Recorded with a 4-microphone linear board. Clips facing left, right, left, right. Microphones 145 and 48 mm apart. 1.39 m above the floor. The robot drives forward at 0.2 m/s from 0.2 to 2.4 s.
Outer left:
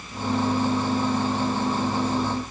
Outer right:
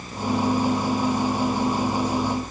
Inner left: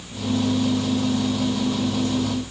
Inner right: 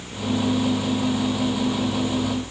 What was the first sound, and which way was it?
Only background noise.